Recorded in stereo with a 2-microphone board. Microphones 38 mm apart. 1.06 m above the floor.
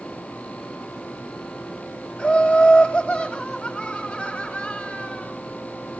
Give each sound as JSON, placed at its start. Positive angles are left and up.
{"t": 2.2, "sound": "laughter", "side_deg": 20, "distance_m": 2.5}